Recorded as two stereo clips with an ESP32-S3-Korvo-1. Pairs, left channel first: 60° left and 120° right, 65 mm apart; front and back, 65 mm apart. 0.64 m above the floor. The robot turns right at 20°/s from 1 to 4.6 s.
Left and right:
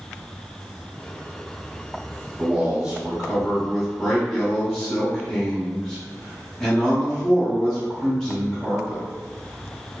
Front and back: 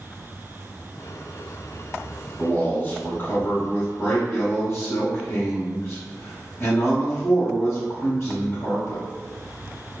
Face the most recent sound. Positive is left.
turn(degrees=-15)